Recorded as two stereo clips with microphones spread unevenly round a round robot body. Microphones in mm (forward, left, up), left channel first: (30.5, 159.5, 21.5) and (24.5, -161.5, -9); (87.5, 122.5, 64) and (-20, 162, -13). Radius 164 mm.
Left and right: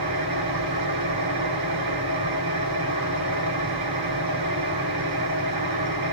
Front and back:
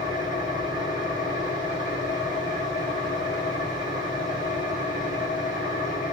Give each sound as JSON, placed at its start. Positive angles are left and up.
{"t": 0.0, "sound": "an engine running", "azimuth_deg": -80, "distance_m": 1.7}